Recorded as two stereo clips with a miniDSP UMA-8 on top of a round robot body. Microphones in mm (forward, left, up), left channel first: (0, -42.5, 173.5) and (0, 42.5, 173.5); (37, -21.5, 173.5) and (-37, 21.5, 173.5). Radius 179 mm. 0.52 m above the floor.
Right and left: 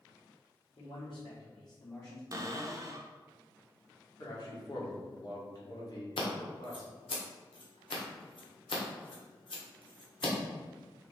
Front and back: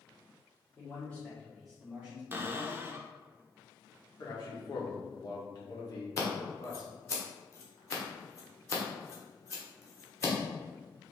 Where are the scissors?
85° right, 1.4 m.